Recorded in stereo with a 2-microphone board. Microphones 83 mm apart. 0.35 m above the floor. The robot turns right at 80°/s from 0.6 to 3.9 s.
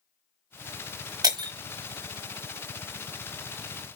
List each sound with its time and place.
1.2 s breaking glass: 50° right (ahead or behind), 0.9 m; by 1.5 s 65° right (ahead or behind), 0.9 m